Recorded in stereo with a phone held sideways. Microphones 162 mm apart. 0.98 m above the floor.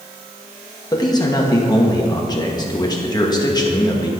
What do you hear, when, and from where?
0.9 s a man speaking: 25° left (ahead or behind), 1.4 m